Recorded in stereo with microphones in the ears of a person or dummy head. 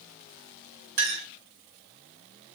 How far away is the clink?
About 1.1 m.